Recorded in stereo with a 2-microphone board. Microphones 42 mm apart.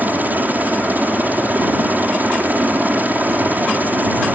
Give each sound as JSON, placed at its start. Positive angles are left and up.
{"t": 0.0, "sound": "a helicopter", "side_deg": -45}